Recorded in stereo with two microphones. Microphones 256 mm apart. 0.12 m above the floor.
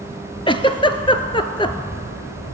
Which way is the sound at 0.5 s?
20° left (ahead or behind).